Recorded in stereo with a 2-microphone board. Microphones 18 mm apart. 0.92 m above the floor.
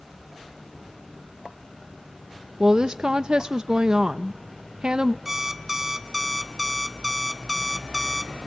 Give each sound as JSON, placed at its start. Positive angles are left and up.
{"t": 2.6, "sound": "a woman speaking", "side_deg": -50, "distance_m": 0.6}
{"t": 5.2, "sound": "an alarm clock", "side_deg": -15, "distance_m": 1.4}